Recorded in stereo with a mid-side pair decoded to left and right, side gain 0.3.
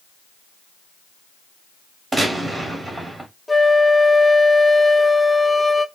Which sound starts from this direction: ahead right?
A gunshot, at 2.1 s.